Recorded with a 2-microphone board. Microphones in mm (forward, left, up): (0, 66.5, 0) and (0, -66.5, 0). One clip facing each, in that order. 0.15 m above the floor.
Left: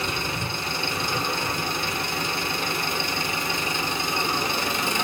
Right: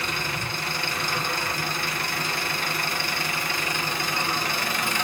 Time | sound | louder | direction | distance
0.0 | an engine running | left 2 dB | 20° left (ahead or behind) | 0.8 m